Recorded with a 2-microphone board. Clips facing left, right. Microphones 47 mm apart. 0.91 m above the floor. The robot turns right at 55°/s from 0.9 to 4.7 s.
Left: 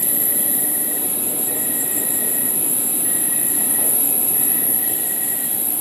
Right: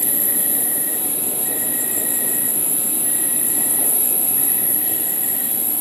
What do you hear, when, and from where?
0.0 s an insect: 90° right, 8 m; by 5.8 s 115° left, 8 m